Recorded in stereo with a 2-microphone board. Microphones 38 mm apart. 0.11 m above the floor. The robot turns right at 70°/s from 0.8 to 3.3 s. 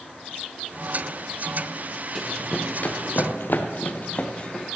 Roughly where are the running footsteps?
Centre.